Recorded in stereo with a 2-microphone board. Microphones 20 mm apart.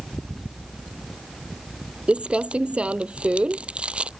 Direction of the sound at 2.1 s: 90° right.